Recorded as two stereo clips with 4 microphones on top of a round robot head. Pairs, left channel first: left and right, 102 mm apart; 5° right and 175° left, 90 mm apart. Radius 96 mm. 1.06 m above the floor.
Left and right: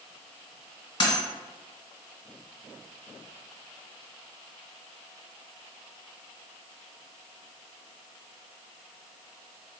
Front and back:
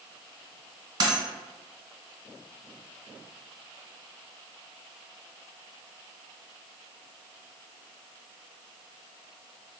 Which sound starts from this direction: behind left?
A dropped coin, at 1.0 s.